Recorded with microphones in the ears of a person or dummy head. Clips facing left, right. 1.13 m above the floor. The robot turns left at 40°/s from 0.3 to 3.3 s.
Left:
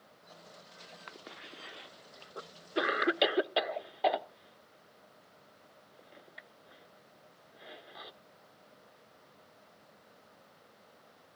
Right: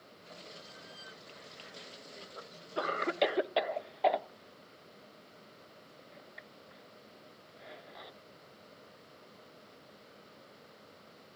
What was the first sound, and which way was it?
A cough, 80° left.